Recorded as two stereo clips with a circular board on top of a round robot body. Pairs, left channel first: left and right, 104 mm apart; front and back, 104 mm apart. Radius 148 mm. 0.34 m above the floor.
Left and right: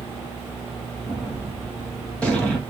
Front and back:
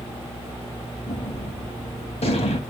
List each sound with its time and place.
1.0 s a gunshot: 10° left, 2 m